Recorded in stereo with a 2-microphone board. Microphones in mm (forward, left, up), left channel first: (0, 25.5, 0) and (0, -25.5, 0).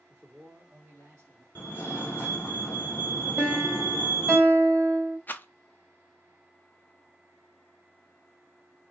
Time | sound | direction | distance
0.1 | a man speaking | 10° right (ahead or behind) | 1.9 m
1.6 | a fire alarm | 40° left (ahead or behind) | 1.9 m
3.4 | a piano | 25° right (ahead or behind) | 1.5 m
5.3 | a rattle | 35° left (ahead or behind) | 0.5 m